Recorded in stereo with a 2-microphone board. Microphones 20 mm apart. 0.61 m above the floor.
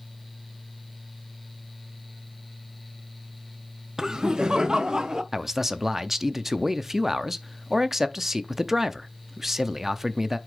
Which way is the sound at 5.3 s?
15° right (ahead or behind).